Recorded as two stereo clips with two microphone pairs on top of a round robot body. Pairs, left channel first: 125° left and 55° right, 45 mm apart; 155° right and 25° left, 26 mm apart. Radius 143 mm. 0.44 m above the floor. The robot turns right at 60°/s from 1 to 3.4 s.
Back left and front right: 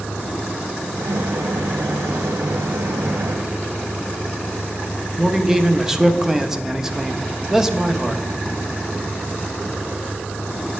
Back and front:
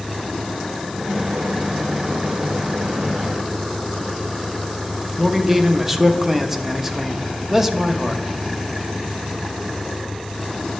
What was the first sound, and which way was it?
A man speaking, 5° left.